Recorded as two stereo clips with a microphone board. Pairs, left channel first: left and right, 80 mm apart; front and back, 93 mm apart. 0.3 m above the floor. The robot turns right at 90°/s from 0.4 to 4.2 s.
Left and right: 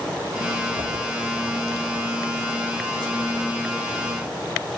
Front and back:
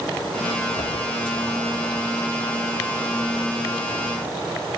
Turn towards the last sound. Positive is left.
turn(degrees=-130)